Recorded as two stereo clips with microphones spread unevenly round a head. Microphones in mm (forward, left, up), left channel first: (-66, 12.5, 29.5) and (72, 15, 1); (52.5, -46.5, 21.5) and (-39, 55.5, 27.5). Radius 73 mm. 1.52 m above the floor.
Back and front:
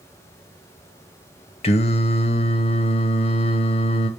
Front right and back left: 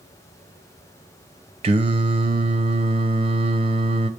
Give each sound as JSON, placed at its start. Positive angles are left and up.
{"t": 1.6, "sound": "singing", "azimuth_deg": 170, "distance_m": 0.7}